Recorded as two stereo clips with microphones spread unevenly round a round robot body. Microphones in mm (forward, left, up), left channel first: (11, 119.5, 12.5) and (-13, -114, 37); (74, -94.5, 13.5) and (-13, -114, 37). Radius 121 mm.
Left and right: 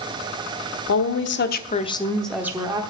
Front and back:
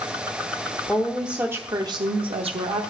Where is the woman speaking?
85° left, 1.2 m; by 2.8 s 170° right, 1.2 m.